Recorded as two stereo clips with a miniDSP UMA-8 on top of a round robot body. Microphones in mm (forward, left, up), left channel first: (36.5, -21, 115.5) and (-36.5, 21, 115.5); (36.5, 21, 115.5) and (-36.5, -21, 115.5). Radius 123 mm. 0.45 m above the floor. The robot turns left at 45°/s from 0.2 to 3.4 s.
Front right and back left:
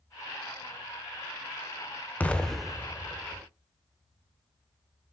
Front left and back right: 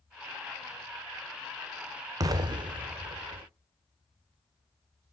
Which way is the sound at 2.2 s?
100° right.